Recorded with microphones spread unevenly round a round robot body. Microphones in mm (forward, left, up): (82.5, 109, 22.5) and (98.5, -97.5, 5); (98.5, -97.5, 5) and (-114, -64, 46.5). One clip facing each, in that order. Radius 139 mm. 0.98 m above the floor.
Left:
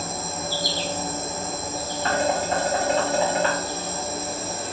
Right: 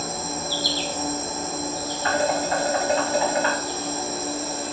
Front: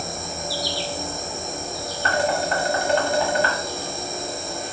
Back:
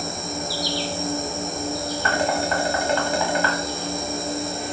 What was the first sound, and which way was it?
An insect, 170° left.